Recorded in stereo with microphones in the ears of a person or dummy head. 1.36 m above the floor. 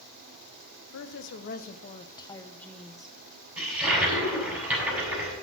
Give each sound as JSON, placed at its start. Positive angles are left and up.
{"t": 0.9, "sound": "a woman speaking", "side_deg": 70, "distance_m": 0.9}
{"t": 3.6, "sound": "a toilet flushing", "side_deg": -10, "distance_m": 6.5}